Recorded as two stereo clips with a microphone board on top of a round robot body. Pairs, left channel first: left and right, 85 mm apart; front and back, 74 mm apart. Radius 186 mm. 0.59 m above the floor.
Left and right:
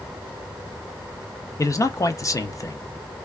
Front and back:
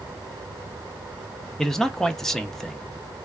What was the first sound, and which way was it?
A man speaking, 80° left.